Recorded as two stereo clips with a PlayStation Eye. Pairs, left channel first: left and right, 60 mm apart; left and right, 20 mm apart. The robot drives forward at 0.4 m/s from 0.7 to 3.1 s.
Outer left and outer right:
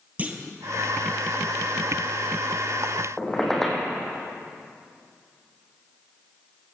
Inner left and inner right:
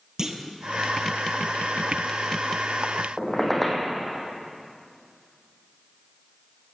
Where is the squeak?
5° left (ahead or behind), 2.5 m.